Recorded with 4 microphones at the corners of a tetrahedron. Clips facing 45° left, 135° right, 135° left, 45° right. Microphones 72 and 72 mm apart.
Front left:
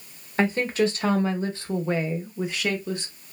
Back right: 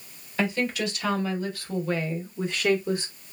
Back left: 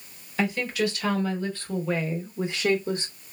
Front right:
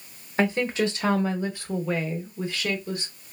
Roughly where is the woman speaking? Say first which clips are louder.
Front left 4 dB, front right 2 dB; ahead.